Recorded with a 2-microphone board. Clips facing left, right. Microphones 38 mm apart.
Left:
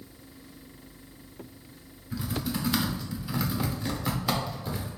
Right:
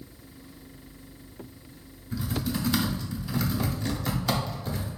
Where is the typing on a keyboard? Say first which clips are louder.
Right 1 dB; 10° left (ahead or behind), 0.8 m.